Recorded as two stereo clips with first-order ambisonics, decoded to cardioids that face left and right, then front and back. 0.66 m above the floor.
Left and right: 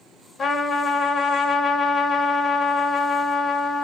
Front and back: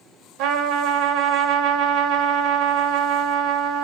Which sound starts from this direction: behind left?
A trumpet, at 0.4 s.